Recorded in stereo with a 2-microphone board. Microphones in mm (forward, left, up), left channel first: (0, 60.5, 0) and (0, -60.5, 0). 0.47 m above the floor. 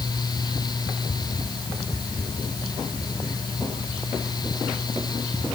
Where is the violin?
I don't hear a violin.